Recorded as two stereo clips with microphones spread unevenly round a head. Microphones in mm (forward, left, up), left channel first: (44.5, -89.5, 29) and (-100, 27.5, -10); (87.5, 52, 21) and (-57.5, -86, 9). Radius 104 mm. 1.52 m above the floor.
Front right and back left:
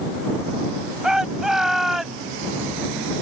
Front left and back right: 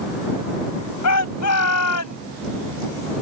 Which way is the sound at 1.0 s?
50° left.